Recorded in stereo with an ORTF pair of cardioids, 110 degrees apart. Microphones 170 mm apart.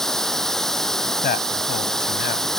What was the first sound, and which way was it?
Running water, 5° left.